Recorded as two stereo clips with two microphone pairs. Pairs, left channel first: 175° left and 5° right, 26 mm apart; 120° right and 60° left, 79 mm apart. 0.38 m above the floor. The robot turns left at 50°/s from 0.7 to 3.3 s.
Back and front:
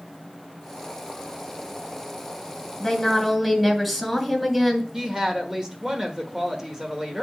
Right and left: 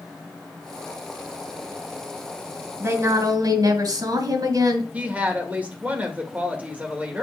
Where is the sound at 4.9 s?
25° left, 1.4 m.